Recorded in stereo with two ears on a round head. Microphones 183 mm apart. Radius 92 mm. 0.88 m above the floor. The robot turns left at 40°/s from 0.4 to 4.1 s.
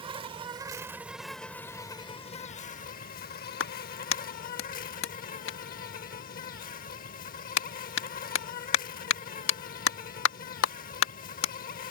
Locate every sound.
0.0 s an insect: 145° right; by 11.9 s 65° left
3.6 s a clap: 65° left (ahead or behind); by 11.5 s 70° left (ahead or behind)